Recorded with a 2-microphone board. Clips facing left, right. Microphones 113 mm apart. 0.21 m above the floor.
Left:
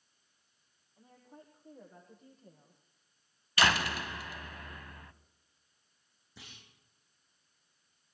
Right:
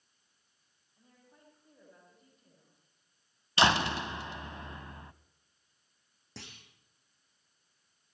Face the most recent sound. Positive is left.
turn(degrees=-80)